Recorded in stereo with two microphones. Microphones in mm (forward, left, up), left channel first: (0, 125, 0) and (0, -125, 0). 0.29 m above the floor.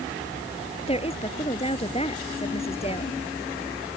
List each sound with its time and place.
0.9 s a woman speaking: 25° left (ahead or behind)